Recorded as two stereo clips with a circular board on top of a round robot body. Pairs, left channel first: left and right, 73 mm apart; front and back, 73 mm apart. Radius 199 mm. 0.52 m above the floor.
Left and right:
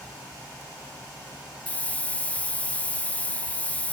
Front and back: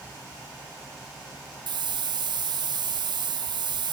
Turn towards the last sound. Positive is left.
turn(degrees=165)